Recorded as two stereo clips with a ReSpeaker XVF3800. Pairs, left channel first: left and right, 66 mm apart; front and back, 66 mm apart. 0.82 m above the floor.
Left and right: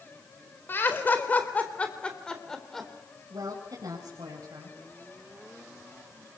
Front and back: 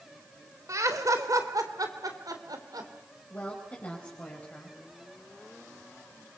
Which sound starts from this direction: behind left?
Laughter, at 0.7 s.